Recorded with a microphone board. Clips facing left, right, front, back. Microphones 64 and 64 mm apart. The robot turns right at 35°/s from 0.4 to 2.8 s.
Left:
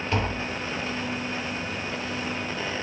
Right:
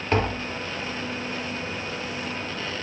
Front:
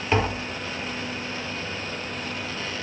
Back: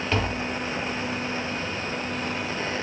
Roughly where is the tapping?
Right.